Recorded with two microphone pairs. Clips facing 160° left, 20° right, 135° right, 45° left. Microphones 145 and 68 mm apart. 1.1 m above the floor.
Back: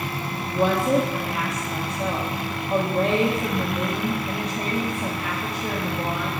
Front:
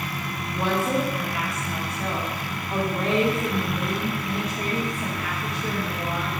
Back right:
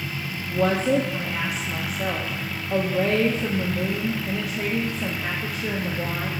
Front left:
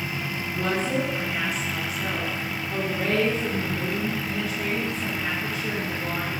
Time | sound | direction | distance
0.5 | a woman speaking | 135° right | 0.9 m